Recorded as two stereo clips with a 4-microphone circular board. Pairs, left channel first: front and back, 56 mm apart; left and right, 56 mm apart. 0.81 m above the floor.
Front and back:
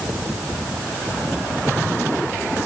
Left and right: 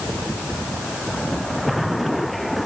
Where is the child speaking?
I don't hear a child speaking.